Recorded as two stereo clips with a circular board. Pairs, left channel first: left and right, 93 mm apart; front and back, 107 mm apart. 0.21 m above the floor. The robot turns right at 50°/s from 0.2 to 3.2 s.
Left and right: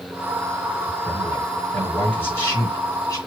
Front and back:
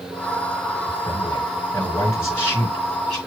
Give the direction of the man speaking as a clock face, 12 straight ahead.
12 o'clock.